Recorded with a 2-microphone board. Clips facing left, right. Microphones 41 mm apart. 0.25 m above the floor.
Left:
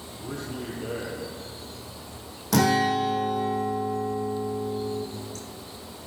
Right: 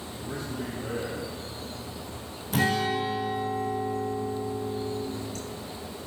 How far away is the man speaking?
About 8.5 m.